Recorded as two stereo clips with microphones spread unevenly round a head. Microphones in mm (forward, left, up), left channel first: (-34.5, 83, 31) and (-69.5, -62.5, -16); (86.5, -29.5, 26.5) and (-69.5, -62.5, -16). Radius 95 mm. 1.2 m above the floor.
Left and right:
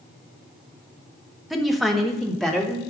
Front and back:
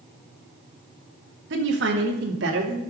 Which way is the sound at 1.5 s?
170° left.